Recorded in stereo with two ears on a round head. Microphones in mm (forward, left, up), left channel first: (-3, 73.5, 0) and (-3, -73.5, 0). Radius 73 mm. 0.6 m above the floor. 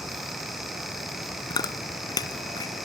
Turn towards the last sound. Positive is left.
turn(degrees=25)  # may be behind; listen again after turning